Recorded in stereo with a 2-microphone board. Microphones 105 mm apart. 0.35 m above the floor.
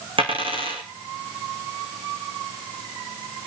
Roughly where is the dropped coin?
Right.